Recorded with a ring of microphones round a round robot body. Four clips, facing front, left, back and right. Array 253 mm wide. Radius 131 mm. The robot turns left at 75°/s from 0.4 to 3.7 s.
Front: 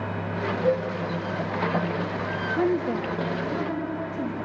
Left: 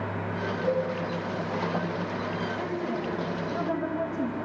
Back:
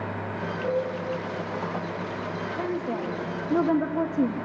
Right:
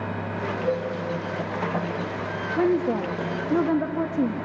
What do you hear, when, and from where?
0.6 s a cowbell: 165° left, 10 m; by 0.9 s 150° left, 10 m
2.6 s a woman speaking: 50° right, 1.2 m; by 4.3 s 135° right, 1.2 m